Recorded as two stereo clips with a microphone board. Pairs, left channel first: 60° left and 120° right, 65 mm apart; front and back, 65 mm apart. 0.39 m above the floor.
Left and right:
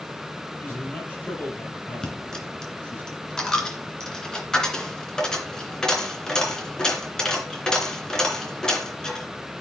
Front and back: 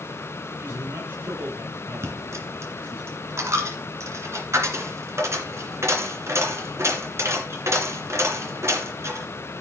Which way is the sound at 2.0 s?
140° left.